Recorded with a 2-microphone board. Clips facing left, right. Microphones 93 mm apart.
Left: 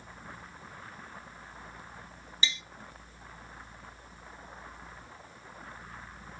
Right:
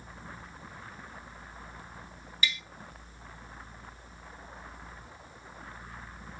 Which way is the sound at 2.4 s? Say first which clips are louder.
Right 2 dB; 25° left (ahead or behind).